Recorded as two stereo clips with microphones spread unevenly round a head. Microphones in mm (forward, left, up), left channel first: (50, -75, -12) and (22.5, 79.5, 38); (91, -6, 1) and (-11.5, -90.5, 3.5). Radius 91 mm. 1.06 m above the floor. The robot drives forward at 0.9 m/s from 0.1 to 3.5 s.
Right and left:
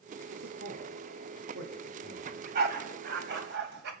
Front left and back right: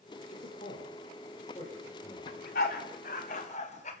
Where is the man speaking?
90° left, 4 m; by 2.3 s 115° left, 4.5 m.